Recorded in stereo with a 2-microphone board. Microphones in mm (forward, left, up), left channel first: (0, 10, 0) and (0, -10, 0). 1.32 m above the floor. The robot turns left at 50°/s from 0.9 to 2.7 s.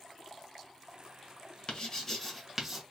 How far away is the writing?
About 1.2 m.